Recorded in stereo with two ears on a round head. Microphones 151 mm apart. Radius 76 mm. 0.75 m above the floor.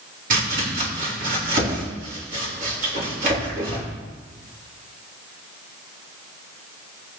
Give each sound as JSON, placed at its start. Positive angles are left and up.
{"t": 0.3, "sound": "chopping", "side_deg": -50, "distance_m": 3.0}